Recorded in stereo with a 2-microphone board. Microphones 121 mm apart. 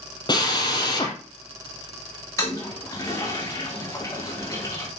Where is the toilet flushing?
25° left (ahead or behind), 5.5 m.